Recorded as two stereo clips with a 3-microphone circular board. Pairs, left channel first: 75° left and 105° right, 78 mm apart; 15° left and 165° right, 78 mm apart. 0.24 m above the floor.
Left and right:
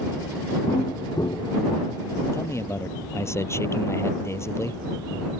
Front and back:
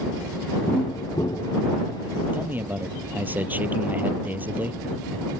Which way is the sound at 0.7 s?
50° left.